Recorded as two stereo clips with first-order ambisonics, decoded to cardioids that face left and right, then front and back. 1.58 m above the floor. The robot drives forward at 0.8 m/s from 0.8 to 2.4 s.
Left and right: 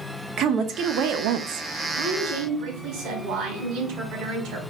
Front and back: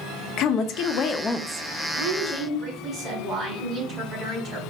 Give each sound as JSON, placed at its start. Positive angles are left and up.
{"t": 0.4, "sound": "a woman speaking", "azimuth_deg": -40, "distance_m": 0.7}
{"t": 1.9, "sound": "a woman speaking", "azimuth_deg": -115, "distance_m": 3.5}